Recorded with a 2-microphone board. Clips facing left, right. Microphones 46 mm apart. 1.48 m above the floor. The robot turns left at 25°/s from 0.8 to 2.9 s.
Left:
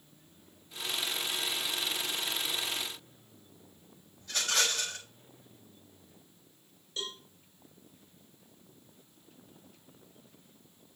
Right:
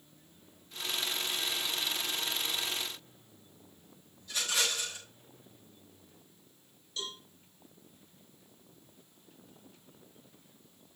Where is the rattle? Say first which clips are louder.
Left 2 dB; 70° left (ahead or behind), 6.5 m.